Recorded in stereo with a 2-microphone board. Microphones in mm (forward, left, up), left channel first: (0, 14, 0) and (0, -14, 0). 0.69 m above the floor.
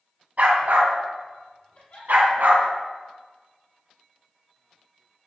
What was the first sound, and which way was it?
A dog barking, 65° right (ahead or behind).